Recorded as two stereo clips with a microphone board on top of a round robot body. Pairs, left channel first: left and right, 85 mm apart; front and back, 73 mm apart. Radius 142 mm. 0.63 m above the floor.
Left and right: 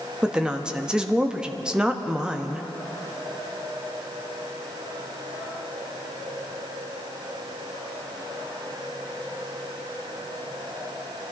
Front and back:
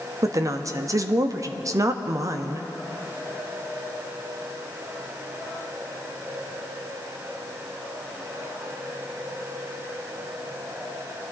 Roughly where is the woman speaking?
Behind.